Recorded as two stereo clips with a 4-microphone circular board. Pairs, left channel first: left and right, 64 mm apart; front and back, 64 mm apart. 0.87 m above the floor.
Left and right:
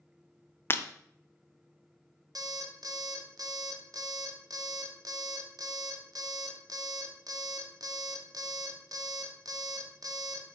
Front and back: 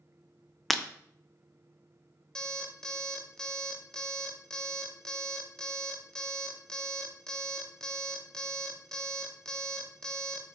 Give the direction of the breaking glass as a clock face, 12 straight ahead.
9 o'clock.